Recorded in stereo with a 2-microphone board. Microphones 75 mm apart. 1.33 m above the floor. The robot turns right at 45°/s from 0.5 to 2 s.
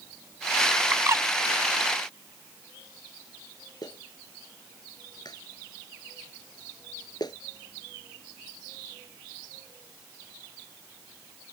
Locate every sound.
0.9 s a bird: 35° right (ahead or behind); by 1.3 s 45° right (ahead or behind)
3.8 s a clap: 65° left (ahead or behind)